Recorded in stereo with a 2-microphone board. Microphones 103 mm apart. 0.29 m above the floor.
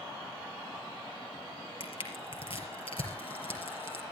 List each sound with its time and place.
1.8 s crushing: 65° left (ahead or behind), 4.5 m